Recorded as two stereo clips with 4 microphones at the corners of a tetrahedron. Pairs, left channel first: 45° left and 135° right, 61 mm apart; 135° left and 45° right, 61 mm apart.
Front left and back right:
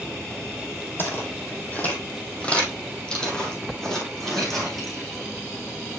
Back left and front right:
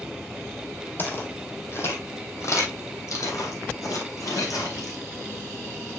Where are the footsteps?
85° left, 1.9 m; by 5.0 s 130° left, 3 m.